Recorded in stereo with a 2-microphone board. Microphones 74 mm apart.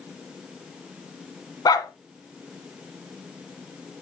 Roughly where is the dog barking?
Left.